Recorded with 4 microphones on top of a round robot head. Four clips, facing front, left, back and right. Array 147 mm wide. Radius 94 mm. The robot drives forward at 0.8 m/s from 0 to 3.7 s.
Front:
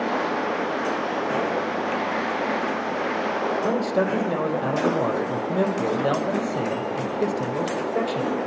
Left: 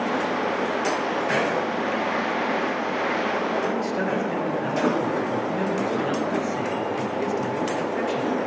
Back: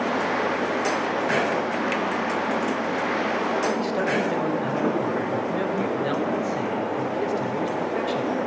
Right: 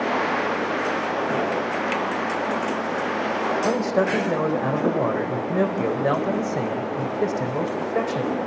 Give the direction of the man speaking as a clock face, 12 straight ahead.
2 o'clock.